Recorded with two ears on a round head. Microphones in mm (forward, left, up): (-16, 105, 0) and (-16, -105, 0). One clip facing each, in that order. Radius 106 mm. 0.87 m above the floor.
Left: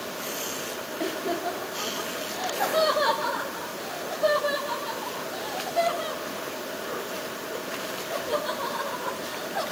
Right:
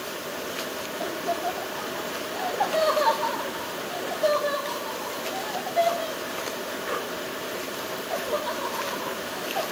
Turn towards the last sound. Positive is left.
turn(degrees=5)  # may be behind; listen again after turning